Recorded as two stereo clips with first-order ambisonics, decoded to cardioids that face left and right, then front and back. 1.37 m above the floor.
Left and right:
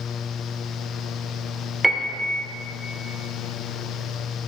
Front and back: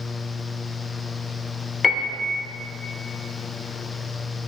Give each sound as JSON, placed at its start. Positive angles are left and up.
{"t": 1.8, "sound": "a piano", "azimuth_deg": -10, "distance_m": 1.0}